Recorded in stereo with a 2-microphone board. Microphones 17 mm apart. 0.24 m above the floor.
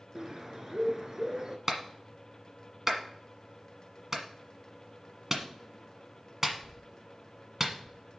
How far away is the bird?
About 0.8 m.